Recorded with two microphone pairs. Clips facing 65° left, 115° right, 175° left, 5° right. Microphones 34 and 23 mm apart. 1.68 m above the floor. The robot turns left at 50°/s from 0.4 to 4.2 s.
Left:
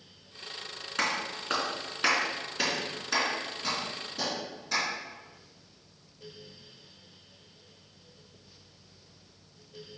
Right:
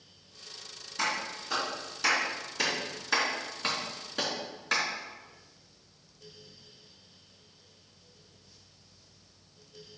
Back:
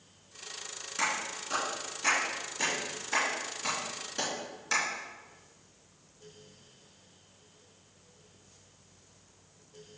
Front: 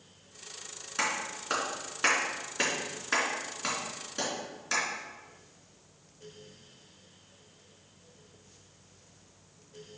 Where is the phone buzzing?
No phone buzzing in this recording.